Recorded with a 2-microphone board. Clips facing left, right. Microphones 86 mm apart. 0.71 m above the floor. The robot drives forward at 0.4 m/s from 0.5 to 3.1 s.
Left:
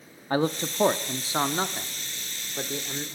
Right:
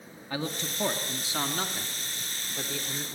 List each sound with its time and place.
0.3 s a man speaking: 40° left (ahead or behind), 0.8 m; by 3.1 s 20° left (ahead or behind), 1.6 m